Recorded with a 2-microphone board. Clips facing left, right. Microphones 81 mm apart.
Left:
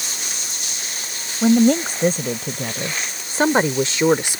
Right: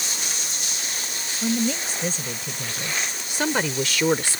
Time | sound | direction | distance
1.4 | a woman speaking | 60° left (ahead or behind) | ?